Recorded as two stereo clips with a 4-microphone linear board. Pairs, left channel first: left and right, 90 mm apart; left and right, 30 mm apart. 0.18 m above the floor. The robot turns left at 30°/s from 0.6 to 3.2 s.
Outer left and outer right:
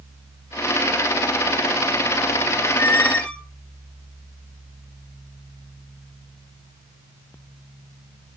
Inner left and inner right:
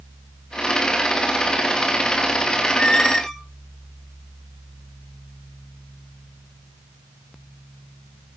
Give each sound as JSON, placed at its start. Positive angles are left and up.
{"t": 2.6, "sound": "a squeak", "side_deg": 30, "distance_m": 1.7}